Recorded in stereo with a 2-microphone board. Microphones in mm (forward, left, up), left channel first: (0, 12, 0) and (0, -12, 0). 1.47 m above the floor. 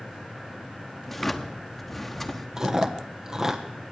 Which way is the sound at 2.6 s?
20° right (ahead or behind).